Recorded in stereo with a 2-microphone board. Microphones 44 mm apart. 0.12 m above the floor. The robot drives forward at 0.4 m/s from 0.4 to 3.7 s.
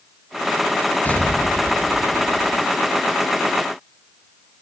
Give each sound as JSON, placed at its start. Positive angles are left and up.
{"t": 1.1, "sound": "an explosion", "side_deg": 35, "distance_m": 1.0}